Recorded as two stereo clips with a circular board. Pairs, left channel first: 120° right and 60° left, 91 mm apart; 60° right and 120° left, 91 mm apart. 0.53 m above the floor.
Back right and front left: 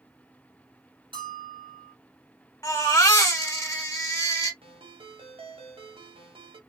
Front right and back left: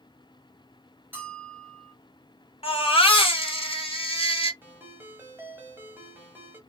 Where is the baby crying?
65° right, 1.3 m.